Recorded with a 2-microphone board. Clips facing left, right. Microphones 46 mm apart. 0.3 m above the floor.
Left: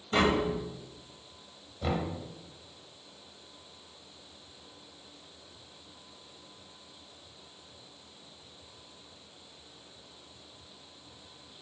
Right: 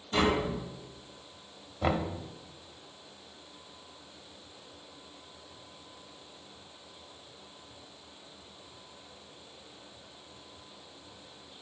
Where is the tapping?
35° left (ahead or behind), 1.3 m.